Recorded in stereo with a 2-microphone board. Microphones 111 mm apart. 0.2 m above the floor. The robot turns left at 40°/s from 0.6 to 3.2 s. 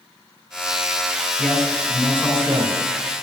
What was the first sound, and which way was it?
A man speaking, 5° left.